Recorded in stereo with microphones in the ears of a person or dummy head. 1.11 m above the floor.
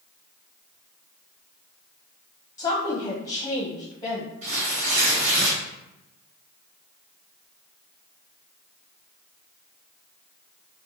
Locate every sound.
2.6 s a woman speaking: 25° left (ahead or behind), 0.6 m
4.4 s tearing paper: 40° right (ahead or behind), 1.6 m